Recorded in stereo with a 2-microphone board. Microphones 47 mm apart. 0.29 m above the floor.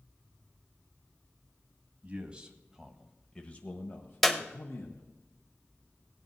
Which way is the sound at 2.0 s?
25° right (ahead or behind).